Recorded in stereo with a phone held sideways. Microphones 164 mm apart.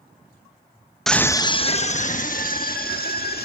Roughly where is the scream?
Centre.